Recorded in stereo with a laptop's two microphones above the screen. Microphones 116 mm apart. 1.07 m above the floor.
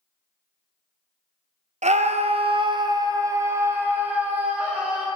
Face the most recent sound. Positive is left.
turn(degrees=-10)  # may be behind; listen again after turning